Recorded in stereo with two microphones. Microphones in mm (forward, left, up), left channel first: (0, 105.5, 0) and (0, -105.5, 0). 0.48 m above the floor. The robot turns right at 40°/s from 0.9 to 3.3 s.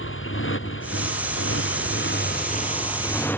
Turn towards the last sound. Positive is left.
turn(degrees=170)